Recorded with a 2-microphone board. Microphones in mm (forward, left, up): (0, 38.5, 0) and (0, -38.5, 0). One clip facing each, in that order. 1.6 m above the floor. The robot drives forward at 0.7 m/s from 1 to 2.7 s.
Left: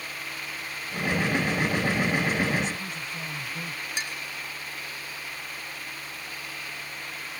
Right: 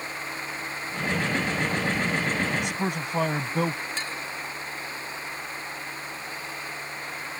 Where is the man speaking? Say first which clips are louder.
Right 4 dB; 70° right (ahead or behind).